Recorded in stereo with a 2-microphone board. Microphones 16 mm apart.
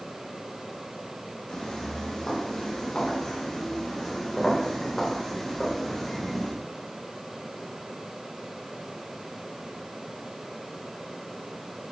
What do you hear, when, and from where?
1.5 s footsteps: 45° left (ahead or behind), 9.5 m; by 6.5 s 20° left (ahead or behind), 10 m